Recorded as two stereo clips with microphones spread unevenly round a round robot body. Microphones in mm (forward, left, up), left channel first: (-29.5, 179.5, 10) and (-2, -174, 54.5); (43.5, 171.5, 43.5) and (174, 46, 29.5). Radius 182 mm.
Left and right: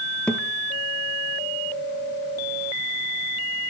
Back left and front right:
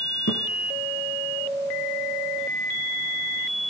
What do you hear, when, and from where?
0.3 s a thud: straight behind, 2 m